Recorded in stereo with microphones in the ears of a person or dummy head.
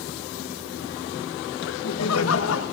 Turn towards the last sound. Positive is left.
turn(degrees=70)  # may be behind; listen again after turning